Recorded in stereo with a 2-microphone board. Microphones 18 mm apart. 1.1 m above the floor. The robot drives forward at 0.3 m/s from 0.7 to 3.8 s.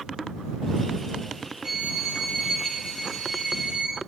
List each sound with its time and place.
1.6 s a violin: 65° right (ahead or behind), 1.3 m; by 4.0 s 75° right (ahead or behind), 1.2 m